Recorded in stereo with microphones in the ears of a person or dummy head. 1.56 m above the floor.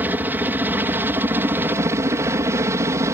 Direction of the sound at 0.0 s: 15° right (ahead or behind).